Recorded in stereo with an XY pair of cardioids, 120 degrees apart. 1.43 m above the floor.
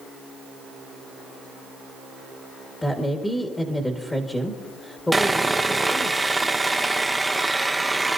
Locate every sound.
2.8 s a woman speaking: 15° left, 1.7 m
5.1 s sawing: 10° right, 0.8 m